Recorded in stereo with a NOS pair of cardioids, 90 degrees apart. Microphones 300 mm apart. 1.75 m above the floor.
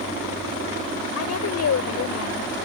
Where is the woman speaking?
60° left.